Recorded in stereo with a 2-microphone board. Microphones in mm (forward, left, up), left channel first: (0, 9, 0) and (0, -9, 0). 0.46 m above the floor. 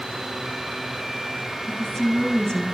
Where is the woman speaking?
30° left (ahead or behind), 4.5 m.